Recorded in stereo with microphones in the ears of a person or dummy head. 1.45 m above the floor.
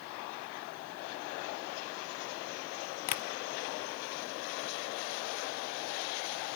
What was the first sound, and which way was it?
Tapping, 40° left (ahead or behind).